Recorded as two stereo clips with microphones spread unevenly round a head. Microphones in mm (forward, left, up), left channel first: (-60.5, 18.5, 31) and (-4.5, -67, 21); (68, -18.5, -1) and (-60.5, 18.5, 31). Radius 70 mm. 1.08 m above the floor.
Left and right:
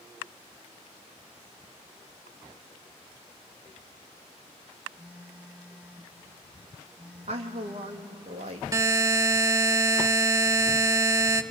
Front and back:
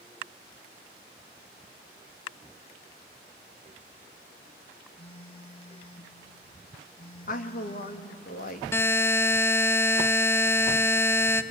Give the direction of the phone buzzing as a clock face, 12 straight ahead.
11 o'clock.